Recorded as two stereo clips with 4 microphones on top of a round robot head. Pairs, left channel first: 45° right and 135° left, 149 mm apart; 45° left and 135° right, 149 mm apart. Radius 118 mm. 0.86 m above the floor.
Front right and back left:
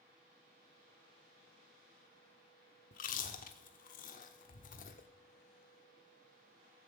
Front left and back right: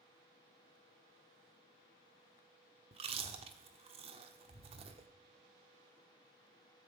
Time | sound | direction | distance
2.9 | chewing | 80° right | 1.0 m